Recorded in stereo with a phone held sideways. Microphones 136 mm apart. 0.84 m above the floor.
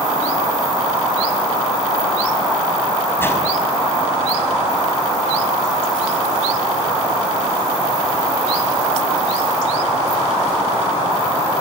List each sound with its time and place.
3.2 s a whoosh: 20° left (ahead or behind), 5 m